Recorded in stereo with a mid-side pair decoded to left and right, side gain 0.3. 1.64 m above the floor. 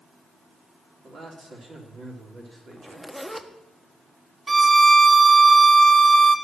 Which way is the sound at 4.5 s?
40° right.